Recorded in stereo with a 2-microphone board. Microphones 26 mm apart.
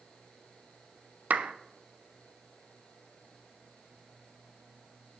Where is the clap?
85° right, 0.7 m.